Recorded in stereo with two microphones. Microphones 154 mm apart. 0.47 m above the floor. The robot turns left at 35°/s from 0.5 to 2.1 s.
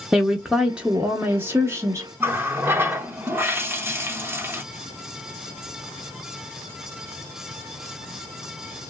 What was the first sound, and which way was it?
A woman speaking, 5° right (ahead or behind).